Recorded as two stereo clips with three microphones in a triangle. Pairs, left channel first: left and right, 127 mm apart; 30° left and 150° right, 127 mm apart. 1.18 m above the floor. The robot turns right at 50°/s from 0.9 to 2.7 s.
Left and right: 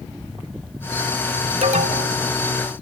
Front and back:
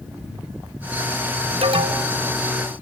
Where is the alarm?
115° right, 2.5 m; by 2.2 s 85° right, 2.5 m.